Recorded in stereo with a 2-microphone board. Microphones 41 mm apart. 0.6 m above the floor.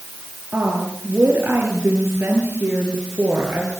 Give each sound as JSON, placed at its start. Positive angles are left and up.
{"t": 0.5, "sound": "a woman speaking", "side_deg": -50, "distance_m": 8.5}